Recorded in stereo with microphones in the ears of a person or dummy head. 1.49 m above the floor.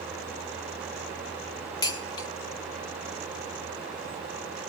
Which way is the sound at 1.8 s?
20° left (ahead or behind).